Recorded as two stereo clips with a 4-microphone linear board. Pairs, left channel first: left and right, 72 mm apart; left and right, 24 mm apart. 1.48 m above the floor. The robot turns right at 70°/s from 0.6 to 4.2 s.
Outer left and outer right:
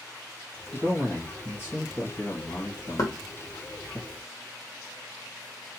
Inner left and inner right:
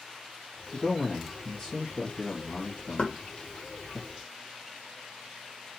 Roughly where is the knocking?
Left.